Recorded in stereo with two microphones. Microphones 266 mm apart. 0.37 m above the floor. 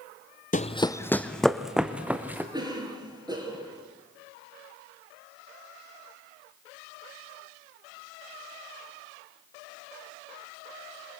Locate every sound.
0.5 s running footsteps: 30° left (ahead or behind), 0.7 m; by 2.4 s 5° right (ahead or behind), 2.5 m
2.5 s a cough: 15° right (ahead or behind), 5.5 m